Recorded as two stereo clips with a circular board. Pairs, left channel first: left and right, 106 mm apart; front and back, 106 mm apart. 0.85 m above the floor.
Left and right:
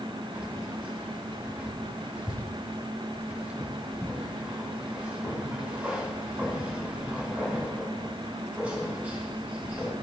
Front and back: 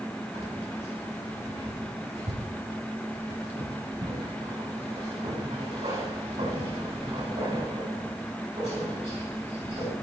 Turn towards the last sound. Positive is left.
turn(degrees=-165)